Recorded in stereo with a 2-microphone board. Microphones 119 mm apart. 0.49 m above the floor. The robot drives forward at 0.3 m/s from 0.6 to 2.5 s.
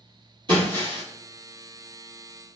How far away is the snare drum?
I don't hear a snare drum.